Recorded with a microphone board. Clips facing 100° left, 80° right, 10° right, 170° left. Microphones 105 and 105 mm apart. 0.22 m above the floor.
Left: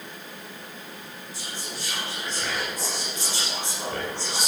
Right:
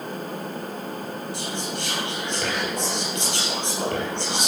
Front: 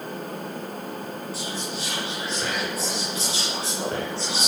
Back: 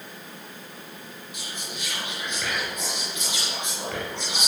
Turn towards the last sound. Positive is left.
turn(degrees=-65)